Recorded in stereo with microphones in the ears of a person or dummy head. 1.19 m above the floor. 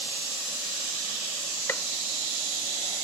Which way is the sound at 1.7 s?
15° left (ahead or behind).